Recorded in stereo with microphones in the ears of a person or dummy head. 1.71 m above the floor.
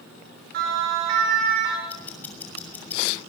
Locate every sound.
0.5 s a siren: 65° right (ahead or behind), 8.5 m; by 1.8 s 55° right (ahead or behind), 9 m
1.9 s ticking: 15° left (ahead or behind), 6.5 m